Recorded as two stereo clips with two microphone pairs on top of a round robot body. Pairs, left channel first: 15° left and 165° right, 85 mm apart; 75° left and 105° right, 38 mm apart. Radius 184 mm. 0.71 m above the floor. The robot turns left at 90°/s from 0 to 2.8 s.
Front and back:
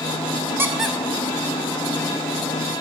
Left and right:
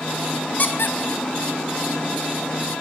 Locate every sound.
0.6 s a squeak: 130° left, 0.9 m; by 2.5 s 40° right, 0.9 m